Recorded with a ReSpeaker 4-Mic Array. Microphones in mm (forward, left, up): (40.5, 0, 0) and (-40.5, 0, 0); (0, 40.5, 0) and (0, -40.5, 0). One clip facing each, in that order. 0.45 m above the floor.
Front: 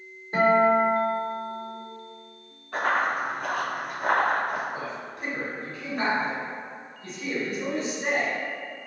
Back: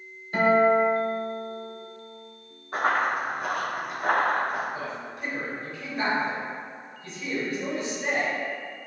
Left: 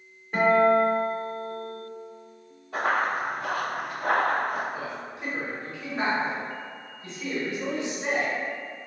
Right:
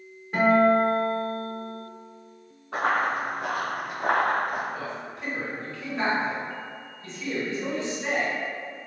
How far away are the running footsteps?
About 1.8 m.